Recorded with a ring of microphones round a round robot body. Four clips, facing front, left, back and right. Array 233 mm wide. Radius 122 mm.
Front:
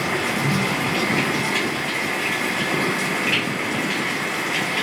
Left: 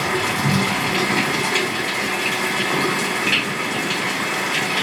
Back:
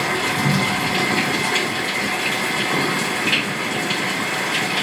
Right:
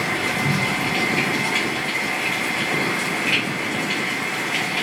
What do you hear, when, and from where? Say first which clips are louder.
0.0 s running water: left 2 dB, back 2 dB; 125° left, 2.5 m